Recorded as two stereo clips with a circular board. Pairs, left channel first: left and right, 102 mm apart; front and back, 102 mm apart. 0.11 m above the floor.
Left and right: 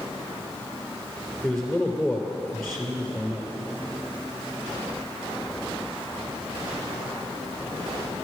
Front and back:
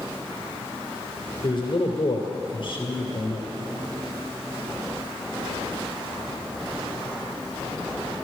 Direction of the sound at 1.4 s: 5° left.